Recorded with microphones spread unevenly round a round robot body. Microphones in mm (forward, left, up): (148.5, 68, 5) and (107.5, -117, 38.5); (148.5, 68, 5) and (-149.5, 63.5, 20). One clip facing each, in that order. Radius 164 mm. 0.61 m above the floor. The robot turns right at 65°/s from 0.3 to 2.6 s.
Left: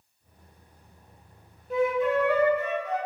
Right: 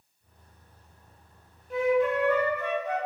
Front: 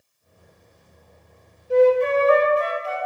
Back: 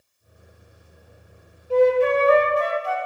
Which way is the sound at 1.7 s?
75° left.